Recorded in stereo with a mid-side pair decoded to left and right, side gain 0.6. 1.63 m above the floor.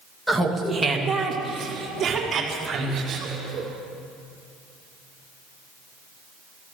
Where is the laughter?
Straight ahead, 2.5 m; by 3.7 s 40° right, 6 m.